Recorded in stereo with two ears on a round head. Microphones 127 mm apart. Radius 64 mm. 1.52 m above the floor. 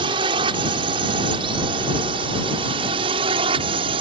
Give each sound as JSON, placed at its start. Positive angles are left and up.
{"t": 0.0, "sound": "a drone", "side_deg": -35}